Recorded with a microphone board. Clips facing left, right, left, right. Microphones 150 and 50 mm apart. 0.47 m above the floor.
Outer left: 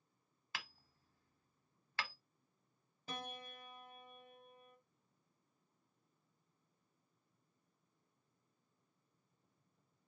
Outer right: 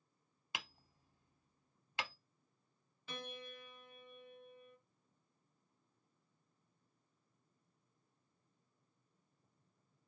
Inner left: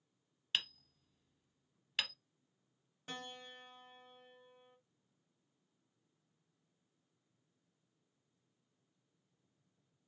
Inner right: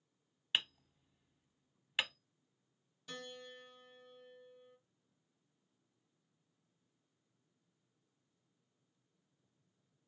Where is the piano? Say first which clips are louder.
Even, inner left 1 dB; 40° left (ahead or behind), 1.3 m.